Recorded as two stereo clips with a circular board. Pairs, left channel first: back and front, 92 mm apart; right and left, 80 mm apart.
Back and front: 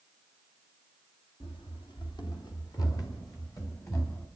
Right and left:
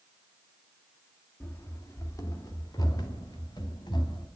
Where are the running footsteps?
155° right, 3 m; by 4.3 s 120° right, 4.5 m.